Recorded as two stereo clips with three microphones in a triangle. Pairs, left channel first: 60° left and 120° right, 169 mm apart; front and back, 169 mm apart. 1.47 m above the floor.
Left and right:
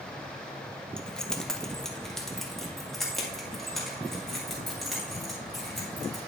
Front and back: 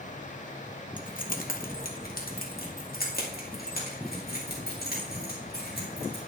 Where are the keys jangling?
25° right, 0.7 m; by 6.2 s 30° right, 4 m.